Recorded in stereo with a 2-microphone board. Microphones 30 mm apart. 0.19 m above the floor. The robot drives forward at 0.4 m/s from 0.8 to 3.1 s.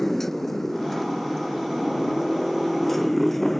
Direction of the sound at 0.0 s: 10° left (ahead or behind).